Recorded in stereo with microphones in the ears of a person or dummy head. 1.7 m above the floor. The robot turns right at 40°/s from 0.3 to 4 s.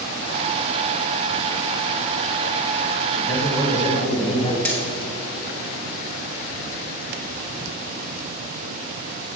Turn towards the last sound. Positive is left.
turn(degrees=10)  # may be behind; listen again after turning